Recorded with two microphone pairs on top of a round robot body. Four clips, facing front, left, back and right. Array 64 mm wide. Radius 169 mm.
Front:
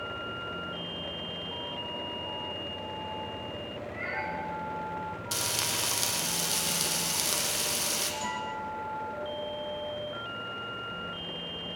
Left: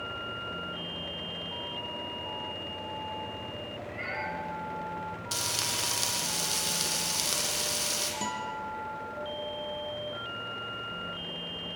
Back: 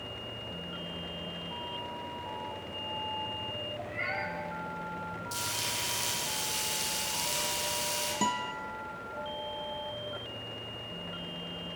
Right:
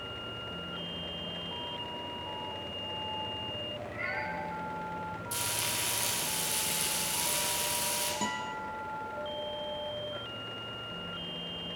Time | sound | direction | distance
3.8 | a cat meowing | 155° left | 9 m
5.3 | frying | 45° left | 4 m
8.2 | a guitar | 170° right | 2.5 m